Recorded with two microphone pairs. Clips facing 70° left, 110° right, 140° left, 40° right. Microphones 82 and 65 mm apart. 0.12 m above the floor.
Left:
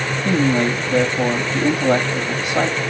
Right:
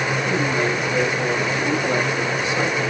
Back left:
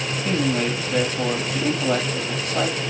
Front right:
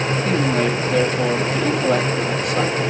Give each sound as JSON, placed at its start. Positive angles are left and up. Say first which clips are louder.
{"t": 0.2, "sound": "a man speaking", "louder": "left 7 dB, front right 2 dB", "azimuth_deg": 50, "distance_m": 4.0}